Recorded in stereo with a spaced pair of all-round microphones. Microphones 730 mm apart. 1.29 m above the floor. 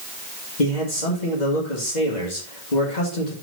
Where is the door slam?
No door slam in this recording.